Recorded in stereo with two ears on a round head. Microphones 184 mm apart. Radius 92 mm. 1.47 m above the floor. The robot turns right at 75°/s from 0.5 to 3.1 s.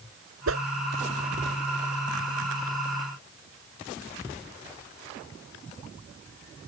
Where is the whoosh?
70° right (ahead or behind); by 0.7 s 60° right (ahead or behind).